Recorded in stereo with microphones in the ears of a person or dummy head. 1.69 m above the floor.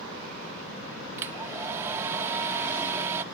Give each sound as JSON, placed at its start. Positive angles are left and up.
{"t": 1.2, "sound": "a hair dryer", "side_deg": -15}